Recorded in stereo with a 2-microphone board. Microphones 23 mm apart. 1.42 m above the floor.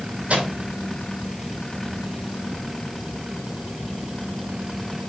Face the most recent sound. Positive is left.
turn(degrees=-65)  # may be behind; listen again after turning